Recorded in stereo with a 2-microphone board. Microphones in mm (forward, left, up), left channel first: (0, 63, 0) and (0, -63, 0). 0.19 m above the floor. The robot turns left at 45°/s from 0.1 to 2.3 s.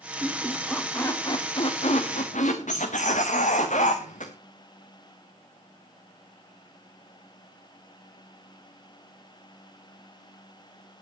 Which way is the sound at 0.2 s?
160° right.